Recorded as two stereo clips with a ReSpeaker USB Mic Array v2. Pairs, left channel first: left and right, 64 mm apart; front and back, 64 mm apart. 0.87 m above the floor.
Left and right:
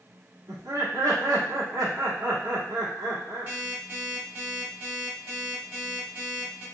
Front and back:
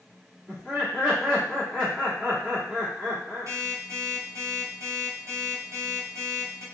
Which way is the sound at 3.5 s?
145° right.